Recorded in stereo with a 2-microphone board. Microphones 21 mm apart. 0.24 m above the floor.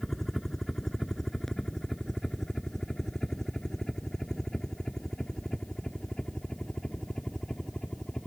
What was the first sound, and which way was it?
A helicopter, 15° left (ahead or behind).